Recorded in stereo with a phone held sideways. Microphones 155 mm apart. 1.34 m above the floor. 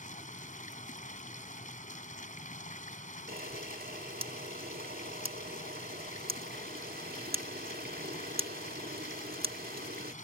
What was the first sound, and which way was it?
Running water, 55° left (ahead or behind).